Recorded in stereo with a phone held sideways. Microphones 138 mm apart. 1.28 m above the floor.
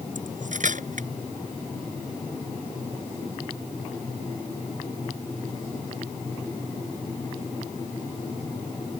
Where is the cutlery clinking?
65° right (ahead or behind).